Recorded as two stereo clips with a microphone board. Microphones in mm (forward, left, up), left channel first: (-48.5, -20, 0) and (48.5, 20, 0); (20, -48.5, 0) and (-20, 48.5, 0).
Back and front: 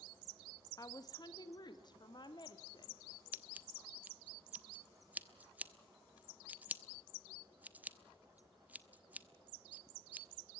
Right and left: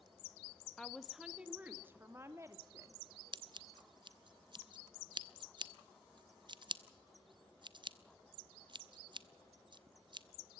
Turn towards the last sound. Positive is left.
turn(degrees=95)